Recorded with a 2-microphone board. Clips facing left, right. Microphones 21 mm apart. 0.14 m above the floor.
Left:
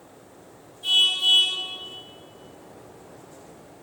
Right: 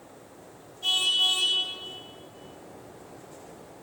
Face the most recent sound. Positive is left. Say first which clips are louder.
# left 4 dB
turn(degrees=-60)  # may be behind; listen again after turning